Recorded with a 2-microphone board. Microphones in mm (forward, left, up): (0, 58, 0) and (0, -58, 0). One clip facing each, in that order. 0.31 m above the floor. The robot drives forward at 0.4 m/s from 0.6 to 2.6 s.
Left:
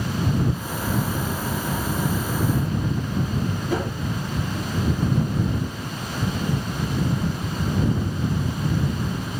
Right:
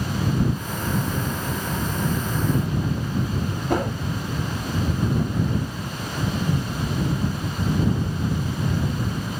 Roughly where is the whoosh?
Right.